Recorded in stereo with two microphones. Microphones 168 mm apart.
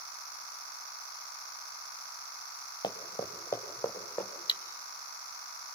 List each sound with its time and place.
2.8 s running footsteps: 25° left (ahead or behind), 1.6 m; by 4.3 s 5° left (ahead or behind), 2.5 m
4.5 s cutlery clinking: 30° left (ahead or behind), 0.7 m